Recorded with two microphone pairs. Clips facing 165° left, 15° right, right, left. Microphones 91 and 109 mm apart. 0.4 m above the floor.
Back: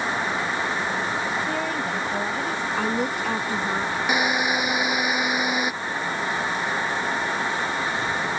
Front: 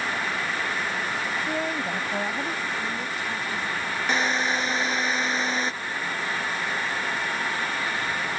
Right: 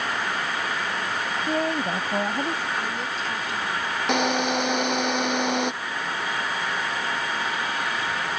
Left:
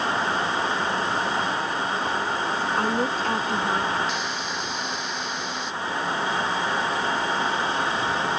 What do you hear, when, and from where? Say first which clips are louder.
1.5 s a woman speaking: back 2 dB, right 2 dB; 95° right
2.8 s a woman speaking: back 6 dB, left 6 dB; 135° left
4.1 s a drill: back 1 dB, right 7 dB; 115° right